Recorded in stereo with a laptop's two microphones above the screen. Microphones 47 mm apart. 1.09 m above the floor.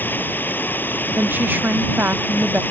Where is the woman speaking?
45° right (ahead or behind).